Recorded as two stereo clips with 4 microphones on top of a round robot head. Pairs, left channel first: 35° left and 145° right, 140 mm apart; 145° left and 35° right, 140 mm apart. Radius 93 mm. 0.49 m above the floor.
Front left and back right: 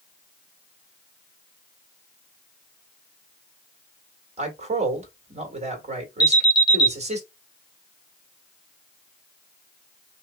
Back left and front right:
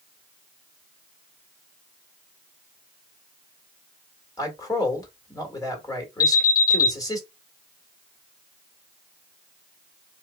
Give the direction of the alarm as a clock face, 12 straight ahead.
9 o'clock.